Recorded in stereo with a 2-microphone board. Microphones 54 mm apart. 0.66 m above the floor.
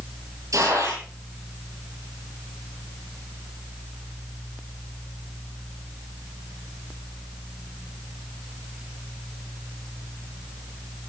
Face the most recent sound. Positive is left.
turn(degrees=-85)